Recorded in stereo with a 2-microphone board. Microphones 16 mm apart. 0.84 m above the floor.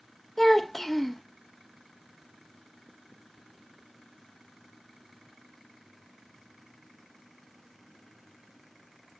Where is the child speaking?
15° left (ahead or behind), 0.5 m.